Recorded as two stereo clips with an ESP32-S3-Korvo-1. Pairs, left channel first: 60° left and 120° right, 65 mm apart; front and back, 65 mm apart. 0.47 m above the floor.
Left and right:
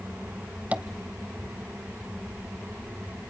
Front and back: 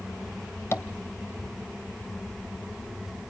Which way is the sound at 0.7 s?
55° right.